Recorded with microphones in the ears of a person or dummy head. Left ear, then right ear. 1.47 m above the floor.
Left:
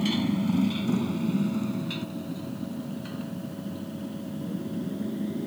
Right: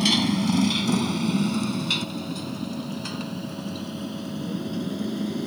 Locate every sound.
0.0 s a motorcycle: 45° right (ahead or behind); by 5.5 s 50° right (ahead or behind)